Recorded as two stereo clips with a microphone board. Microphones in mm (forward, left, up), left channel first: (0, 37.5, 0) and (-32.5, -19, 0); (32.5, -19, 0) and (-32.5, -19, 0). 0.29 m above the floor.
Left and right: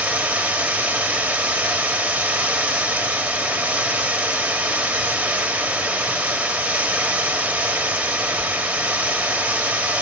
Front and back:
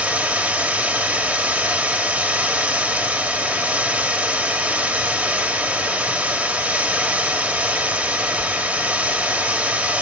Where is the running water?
155° right, 1.3 m.